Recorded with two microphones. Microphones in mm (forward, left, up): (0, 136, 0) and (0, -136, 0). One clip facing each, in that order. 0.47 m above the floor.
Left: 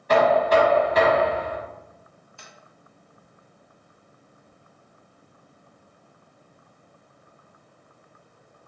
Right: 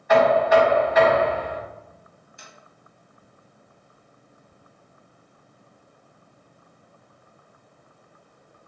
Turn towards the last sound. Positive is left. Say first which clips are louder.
# even
turn(degrees=-20)  # may be behind; listen again after turning